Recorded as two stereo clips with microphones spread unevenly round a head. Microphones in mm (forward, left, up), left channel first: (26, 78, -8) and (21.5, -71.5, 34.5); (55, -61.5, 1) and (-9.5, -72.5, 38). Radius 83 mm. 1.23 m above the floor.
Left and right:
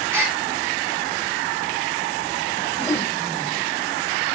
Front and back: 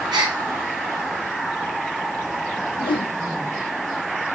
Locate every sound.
0.1 s a gasp: 170° right, 2 m
2.8 s a whoosh: 15° left, 0.5 m